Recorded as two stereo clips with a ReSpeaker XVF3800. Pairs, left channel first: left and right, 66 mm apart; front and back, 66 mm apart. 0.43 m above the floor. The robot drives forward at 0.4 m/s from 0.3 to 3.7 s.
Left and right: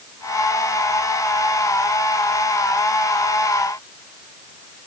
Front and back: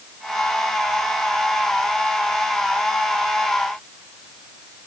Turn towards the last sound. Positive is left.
No sound to turn to.